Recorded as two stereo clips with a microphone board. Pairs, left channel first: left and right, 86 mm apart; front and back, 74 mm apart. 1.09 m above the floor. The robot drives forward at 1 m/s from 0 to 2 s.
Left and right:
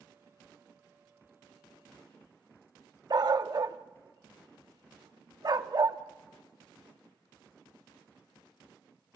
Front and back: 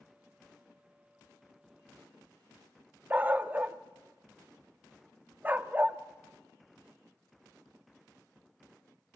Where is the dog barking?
115° right, 0.8 m.